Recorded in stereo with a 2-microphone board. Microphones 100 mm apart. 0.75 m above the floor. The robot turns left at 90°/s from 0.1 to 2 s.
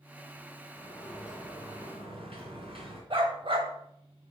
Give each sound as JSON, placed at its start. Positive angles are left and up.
{"t": 0.8, "sound": "a sliding door", "azimuth_deg": 40, "distance_m": 2.5}
{"t": 3.1, "sound": "a dog barking", "side_deg": -60, "distance_m": 1.2}